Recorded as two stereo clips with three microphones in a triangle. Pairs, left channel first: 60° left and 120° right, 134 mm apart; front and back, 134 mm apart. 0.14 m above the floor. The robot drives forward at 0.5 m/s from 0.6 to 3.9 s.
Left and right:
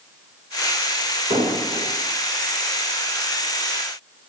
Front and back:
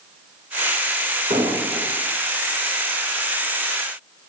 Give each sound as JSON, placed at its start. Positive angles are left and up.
{"t": 1.3, "sound": "an explosion", "azimuth_deg": -155, "distance_m": 4.0}